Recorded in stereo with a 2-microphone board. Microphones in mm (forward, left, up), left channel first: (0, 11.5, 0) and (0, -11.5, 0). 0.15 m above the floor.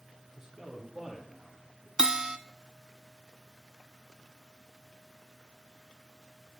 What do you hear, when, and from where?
0.4 s a man speaking: centre (ahead or behind), 2.5 m; by 1.9 s 30° left (ahead or behind), 3 m
2.0 s a bell: 35° right (ahead or behind), 0.5 m